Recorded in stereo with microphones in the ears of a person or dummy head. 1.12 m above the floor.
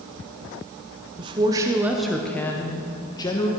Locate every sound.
1.2 s a woman speaking: 30° right (ahead or behind), 0.7 m; by 3.5 s 25° left (ahead or behind), 1.2 m